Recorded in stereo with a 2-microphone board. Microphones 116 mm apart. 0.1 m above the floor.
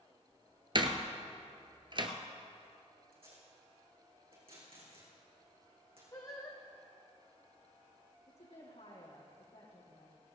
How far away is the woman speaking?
About 4 m.